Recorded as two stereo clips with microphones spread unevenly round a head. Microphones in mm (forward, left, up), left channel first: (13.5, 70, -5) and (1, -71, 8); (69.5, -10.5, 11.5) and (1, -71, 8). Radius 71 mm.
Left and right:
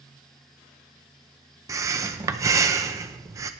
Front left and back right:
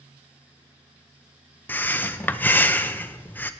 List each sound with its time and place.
1.7 s breathing: 30° right, 0.6 m